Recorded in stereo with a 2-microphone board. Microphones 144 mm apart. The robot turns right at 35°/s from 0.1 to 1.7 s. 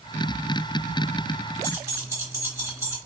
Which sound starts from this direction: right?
Keys jangling, at 1.6 s.